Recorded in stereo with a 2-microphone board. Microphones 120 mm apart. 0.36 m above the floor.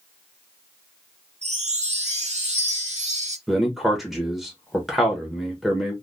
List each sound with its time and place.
1.4 s a chime: 70° right (ahead or behind), 0.8 m
3.5 s a man speaking: centre (ahead or behind), 1.0 m